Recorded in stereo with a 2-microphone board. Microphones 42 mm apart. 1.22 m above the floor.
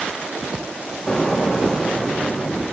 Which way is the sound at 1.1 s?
10° left (ahead or behind).